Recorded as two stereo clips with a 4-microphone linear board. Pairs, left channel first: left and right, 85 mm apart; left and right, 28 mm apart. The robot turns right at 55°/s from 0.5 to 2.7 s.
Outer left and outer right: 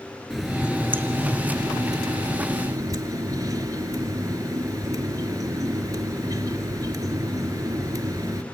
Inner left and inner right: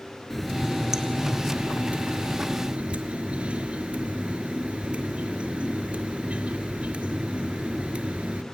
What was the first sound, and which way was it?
A running tap, 175° right.